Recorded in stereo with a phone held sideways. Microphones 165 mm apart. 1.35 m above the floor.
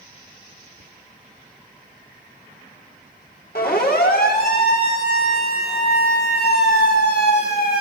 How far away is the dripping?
No dripping in this recording.